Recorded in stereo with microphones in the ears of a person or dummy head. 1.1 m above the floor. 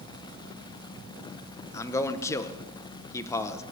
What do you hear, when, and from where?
1.7 s a man speaking: 15° left (ahead or behind), 0.6 m